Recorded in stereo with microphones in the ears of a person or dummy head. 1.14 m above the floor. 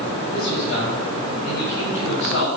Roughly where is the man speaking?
Left.